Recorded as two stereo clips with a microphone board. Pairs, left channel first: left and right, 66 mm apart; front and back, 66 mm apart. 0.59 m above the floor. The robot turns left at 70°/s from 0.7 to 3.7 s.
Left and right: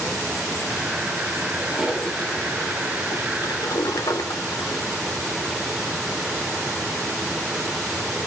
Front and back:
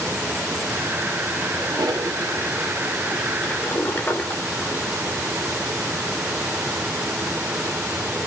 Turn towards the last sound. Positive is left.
turn(degrees=60)